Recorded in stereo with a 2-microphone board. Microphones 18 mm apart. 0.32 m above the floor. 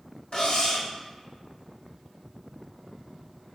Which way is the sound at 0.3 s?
45° left (ahead or behind).